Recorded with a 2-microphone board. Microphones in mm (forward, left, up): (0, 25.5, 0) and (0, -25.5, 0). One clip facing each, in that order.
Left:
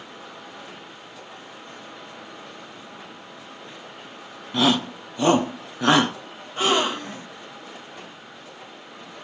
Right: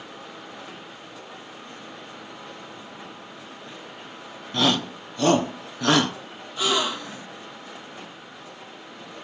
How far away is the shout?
About 1.3 m.